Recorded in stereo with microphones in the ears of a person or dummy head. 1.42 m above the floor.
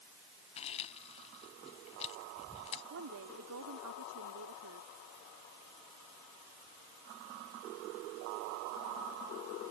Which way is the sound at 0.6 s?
30° left (ahead or behind).